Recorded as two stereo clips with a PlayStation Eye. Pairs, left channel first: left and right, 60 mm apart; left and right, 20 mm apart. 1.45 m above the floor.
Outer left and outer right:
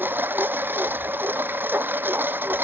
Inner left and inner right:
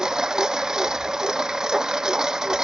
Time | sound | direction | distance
0.0 | a lawn mower | 35° right (ahead or behind) | ?